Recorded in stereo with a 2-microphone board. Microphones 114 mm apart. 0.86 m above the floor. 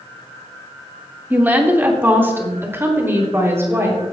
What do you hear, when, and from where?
1.3 s a woman speaking: 15° right (ahead or behind), 1.6 m; by 4.0 s 20° right (ahead or behind), 3.5 m